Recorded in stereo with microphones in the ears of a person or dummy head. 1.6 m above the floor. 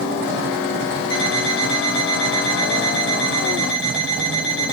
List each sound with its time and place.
1.1 s an alarm clock: 70° left (ahead or behind), 4.5 m